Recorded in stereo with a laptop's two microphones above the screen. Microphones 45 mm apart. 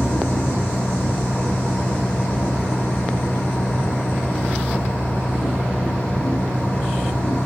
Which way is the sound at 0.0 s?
40° left (ahead or behind).